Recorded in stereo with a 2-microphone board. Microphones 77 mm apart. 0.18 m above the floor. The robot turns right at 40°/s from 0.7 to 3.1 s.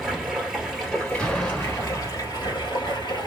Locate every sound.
0.0 s running water: straight ahead, 1.7 m; by 3.3 s 95° left, 1.7 m
1.2 s an explosion: 10° left (ahead or behind), 1.1 m; by 2.7 s 10° right (ahead or behind), 1.1 m